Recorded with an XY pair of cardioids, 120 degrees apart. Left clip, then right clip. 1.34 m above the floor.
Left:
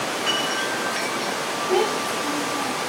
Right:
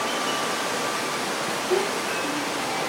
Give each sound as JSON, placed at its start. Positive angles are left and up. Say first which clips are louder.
{"t": 1.7, "sound": "a child speaking", "louder": "left 4 dB", "azimuth_deg": 45, "distance_m": 5.5}